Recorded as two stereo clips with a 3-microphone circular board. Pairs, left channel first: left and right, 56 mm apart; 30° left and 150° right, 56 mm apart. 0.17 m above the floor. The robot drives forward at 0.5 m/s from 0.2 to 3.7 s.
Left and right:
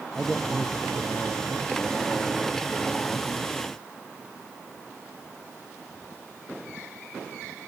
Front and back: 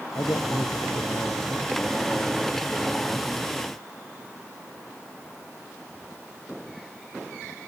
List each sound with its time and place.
0.1 s a man speaking: 10° left